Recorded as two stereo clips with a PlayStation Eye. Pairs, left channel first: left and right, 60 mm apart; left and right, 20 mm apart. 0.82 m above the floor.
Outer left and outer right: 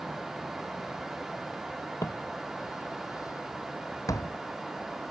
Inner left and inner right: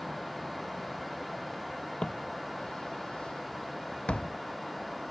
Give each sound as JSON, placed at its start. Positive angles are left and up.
{"t": 2.0, "sound": "footsteps", "side_deg": 60}